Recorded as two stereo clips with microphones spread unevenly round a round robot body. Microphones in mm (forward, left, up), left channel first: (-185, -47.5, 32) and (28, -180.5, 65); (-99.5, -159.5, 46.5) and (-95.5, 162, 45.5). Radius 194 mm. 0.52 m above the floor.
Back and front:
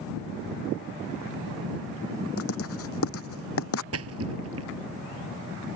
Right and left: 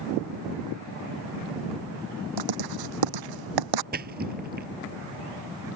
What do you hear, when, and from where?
2.4 s writing: 95° left
3.9 s a splash: 20° left